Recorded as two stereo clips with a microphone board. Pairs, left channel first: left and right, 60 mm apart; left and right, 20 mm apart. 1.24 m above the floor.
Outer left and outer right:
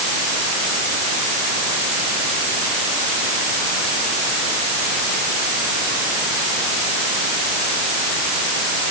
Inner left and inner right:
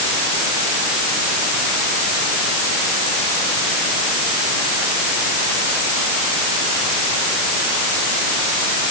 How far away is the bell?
I don't hear a bell.